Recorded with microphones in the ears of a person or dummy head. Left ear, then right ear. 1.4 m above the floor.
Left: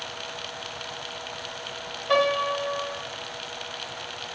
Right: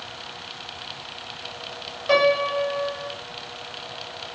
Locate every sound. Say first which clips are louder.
2.1 s a piano: right 3 dB; 50° right (ahead or behind), 3 m